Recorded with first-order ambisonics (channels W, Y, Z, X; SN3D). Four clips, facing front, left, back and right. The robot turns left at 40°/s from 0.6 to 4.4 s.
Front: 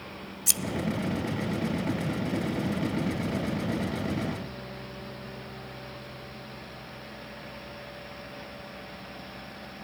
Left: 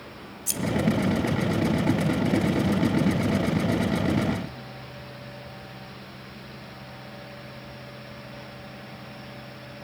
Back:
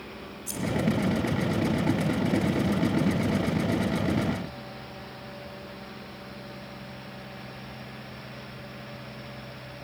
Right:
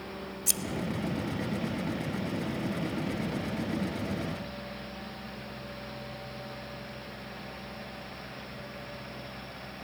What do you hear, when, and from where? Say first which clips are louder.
0.5 s scissors: even, front 10 dB; 10° right, 0.8 m